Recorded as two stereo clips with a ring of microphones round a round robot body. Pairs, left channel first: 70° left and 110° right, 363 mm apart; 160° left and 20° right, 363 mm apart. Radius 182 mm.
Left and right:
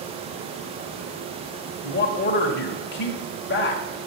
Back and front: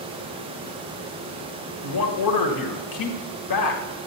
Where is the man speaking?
125° left, 1.7 m.